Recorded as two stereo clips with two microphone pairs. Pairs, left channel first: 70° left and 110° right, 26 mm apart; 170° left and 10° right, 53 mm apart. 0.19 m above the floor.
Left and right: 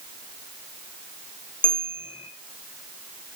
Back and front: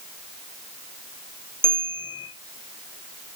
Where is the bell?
25° left, 2 m.